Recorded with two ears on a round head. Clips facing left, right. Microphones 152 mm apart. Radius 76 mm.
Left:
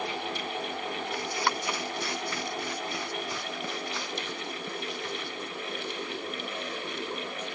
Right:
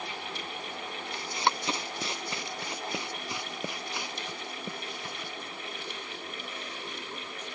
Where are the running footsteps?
25° right (ahead or behind); by 5.3 s 10° right (ahead or behind).